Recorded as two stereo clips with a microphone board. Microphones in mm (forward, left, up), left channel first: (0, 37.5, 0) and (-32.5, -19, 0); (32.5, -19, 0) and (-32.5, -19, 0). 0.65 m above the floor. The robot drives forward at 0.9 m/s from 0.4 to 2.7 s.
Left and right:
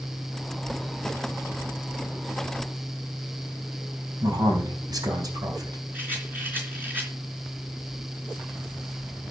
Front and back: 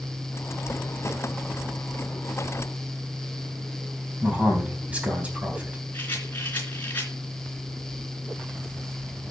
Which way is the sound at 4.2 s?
110° right.